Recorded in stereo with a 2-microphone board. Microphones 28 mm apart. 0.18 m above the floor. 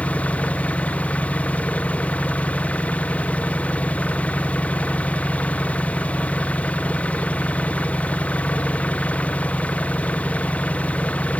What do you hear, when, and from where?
0.0 s an engine running: 50° left (ahead or behind)